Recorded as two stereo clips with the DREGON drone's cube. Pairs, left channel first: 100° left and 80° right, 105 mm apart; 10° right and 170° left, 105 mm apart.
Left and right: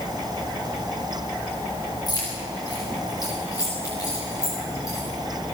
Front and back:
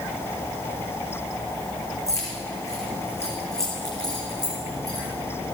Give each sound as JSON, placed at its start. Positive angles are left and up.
{"t": 2.1, "sound": "keys jangling", "azimuth_deg": 50, "distance_m": 7.0}